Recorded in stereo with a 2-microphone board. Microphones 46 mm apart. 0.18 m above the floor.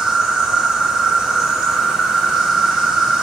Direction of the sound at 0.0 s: 15° right (ahead or behind).